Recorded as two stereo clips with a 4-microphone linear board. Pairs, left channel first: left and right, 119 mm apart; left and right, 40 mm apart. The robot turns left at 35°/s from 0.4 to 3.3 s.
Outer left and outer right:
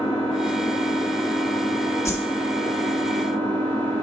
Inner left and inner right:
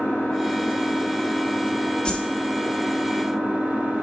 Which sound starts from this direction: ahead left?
An engine running, at 0.0 s.